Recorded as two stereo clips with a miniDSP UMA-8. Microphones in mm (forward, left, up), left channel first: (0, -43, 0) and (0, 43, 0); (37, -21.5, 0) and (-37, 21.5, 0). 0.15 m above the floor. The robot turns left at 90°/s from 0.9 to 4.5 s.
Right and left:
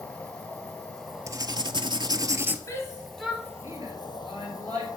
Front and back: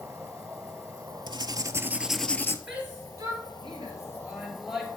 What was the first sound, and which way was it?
An insect, 160° right.